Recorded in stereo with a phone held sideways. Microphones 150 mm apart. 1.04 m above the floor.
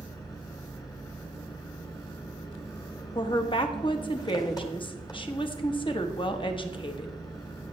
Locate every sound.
0.0 s an engine running: 25° left (ahead or behind), 1.7 m
3.1 s a woman speaking: 35° left (ahead or behind), 1.3 m